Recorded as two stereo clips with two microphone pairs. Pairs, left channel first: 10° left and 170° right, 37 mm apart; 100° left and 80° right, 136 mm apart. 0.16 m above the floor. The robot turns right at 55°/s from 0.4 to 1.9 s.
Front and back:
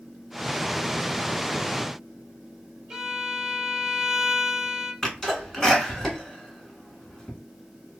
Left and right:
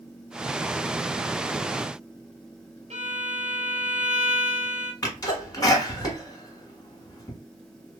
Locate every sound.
2.9 s a violin: 95° right, 1.1 m
5.0 s a sneeze: 75° left, 1.3 m